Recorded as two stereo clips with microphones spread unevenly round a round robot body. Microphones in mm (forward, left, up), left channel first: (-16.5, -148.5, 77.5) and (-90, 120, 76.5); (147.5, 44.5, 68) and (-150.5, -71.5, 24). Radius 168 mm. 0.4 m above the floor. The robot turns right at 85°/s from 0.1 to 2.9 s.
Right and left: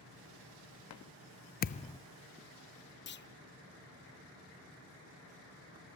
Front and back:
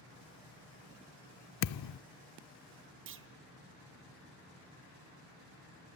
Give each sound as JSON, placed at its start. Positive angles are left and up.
{"t": 1.6, "sound": "a thud", "azimuth_deg": -30, "distance_m": 0.5}
{"t": 3.1, "sound": "a clunk", "azimuth_deg": -120, "distance_m": 1.3}